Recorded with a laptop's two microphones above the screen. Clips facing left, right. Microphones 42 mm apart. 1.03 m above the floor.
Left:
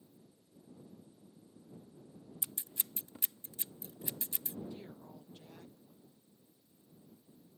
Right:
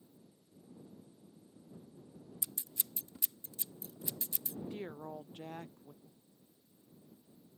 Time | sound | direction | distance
2.4 | scissors | 30° left (ahead or behind) | ?
4.7 | a woman speaking | 50° right (ahead or behind) | ?
6.0 | breathing | 10° right (ahead or behind) | ?